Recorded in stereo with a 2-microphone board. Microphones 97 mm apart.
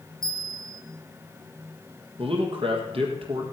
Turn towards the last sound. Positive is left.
turn(degrees=-60)  # may be behind; listen again after turning